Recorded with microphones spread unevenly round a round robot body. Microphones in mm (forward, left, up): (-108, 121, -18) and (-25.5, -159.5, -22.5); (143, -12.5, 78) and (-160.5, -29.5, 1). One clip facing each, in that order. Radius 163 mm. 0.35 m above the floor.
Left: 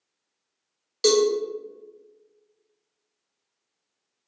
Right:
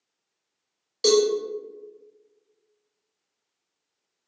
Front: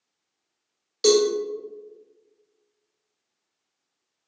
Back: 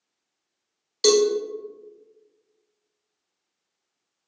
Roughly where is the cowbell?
Behind.